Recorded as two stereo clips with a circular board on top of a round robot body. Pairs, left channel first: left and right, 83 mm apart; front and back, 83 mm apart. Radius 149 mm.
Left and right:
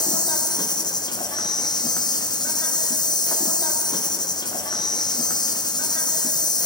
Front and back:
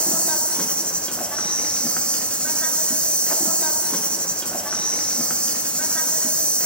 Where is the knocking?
I don't hear knocking.